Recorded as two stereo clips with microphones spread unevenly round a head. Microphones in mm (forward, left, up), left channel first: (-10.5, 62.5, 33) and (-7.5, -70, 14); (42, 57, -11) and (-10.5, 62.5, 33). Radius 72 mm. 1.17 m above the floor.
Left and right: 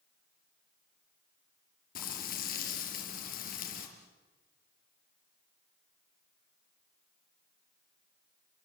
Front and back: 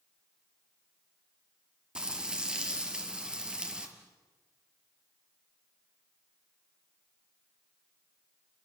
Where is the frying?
115° left, 4 m.